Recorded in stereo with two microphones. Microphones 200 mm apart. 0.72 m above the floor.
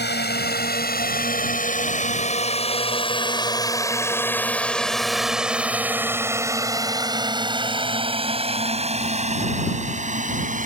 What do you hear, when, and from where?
0.0 s a drone: 55° left (ahead or behind); by 10.7 s 40° right (ahead or behind)